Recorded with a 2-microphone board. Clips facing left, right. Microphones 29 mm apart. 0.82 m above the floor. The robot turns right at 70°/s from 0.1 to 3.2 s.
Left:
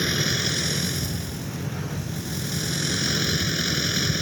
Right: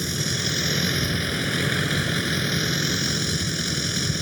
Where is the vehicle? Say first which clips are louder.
Left 2 dB; 155° left; by 4.2 s 10° left.